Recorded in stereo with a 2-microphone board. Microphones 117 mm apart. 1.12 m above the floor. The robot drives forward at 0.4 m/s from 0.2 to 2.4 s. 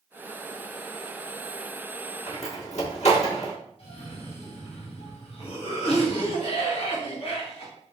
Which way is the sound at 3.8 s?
55° left (ahead or behind).